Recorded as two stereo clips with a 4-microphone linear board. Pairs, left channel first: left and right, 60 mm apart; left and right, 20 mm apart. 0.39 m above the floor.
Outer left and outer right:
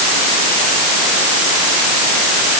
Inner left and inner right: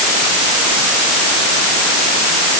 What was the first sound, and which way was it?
Only background noise.